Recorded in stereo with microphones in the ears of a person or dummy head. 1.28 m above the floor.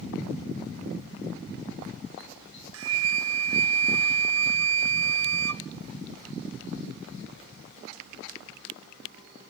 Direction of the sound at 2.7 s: 75° right (ahead or behind).